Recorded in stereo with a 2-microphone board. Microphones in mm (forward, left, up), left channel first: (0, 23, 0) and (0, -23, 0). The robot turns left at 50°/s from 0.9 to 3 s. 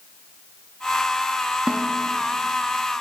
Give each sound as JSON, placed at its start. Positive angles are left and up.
{"t": 1.7, "sound": "a snare drum", "side_deg": -25, "distance_m": 0.8}